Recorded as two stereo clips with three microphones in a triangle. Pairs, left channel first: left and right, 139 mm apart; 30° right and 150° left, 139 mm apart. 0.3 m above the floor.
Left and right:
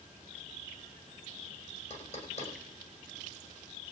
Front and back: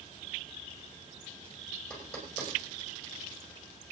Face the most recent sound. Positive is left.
turn(degrees=55)